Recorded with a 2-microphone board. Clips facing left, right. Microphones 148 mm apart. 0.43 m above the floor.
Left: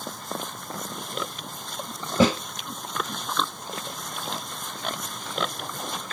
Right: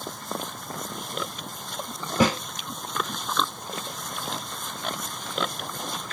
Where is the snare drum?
30° left (ahead or behind), 1.8 m.